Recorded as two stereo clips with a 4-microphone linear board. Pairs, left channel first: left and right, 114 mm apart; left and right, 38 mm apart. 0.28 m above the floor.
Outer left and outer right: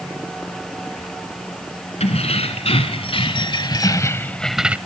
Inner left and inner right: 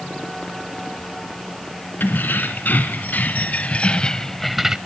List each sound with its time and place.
2.0 s keys jangling: 65° left (ahead or behind), 2 m; by 4.8 s 15° right (ahead or behind), 0.7 m